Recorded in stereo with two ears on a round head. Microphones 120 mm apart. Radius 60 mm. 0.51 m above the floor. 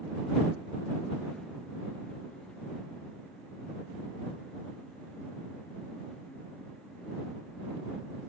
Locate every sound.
Only background noise.